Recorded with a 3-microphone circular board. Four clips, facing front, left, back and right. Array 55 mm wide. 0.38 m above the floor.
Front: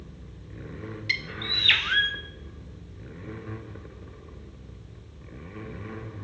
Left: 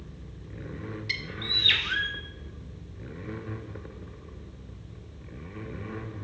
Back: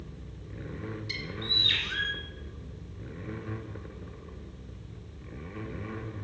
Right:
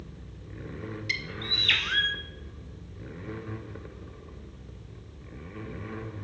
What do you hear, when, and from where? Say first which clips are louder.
1.1 s a bird: right 1 dB, front 8 dB; 5° right, 0.6 m